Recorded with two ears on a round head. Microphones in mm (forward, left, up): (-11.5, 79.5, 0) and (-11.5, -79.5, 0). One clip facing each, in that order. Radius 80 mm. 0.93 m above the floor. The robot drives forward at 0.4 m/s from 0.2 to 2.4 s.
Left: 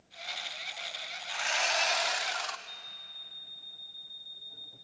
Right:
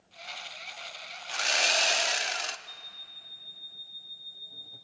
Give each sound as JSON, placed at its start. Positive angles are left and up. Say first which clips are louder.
{"t": 1.3, "sound": "sawing", "louder": "right 2 dB", "side_deg": -50, "distance_m": 0.7}
{"t": 2.7, "sound": "an alarm clock", "louder": "even", "side_deg": -25, "distance_m": 5.0}